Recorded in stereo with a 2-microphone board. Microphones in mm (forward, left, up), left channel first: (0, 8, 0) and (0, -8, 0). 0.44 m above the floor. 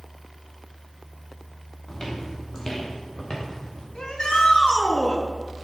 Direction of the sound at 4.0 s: 65° left (ahead or behind).